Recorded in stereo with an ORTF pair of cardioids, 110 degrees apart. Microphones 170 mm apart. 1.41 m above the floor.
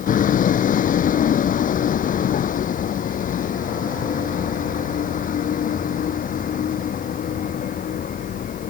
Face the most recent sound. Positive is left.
turn(degrees=50)